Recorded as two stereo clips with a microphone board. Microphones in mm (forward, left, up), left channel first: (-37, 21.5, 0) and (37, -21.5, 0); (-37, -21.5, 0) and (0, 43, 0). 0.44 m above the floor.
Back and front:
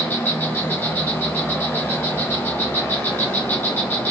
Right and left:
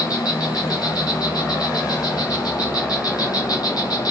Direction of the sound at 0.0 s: 145° right.